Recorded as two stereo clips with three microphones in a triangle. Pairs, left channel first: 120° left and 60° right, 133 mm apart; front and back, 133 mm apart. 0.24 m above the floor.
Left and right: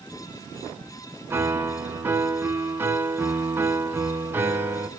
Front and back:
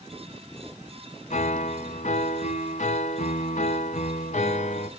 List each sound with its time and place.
1.3 s a piano: 10° left, 1.0 m